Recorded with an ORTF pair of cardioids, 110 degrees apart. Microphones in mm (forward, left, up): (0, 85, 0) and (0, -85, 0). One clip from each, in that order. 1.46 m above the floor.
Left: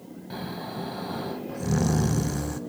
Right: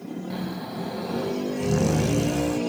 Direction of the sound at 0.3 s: Straight ahead.